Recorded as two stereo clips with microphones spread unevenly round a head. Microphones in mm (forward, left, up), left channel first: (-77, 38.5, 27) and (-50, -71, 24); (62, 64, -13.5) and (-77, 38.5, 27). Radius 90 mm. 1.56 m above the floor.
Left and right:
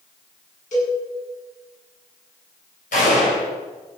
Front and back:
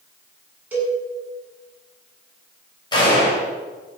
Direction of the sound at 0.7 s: 115° left.